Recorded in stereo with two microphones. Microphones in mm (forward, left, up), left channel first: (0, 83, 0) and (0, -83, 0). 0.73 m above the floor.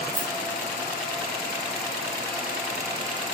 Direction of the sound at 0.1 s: 70° right (ahead or behind).